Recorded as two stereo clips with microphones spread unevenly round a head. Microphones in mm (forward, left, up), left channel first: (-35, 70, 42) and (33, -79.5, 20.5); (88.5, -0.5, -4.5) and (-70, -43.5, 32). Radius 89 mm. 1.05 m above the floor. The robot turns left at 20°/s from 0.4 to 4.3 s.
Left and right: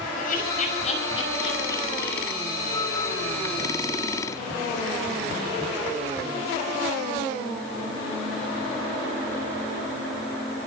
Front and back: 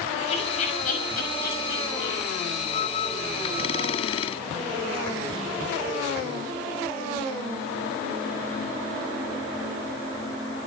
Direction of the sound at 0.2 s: 70° left.